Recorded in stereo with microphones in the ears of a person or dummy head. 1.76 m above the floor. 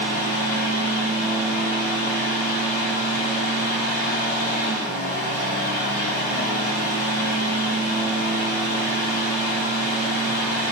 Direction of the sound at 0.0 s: 55° left (ahead or behind).